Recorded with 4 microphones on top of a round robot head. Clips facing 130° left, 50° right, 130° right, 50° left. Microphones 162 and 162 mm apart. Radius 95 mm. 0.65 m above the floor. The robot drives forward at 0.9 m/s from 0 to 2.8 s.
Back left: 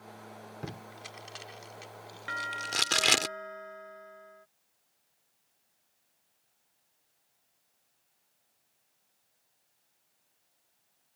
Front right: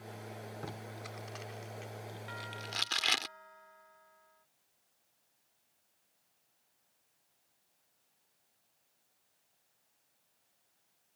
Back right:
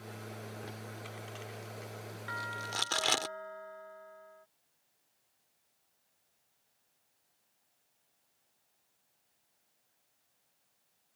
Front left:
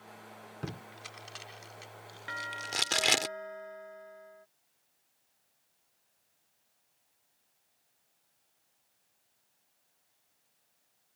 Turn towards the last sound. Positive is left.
turn(degrees=120)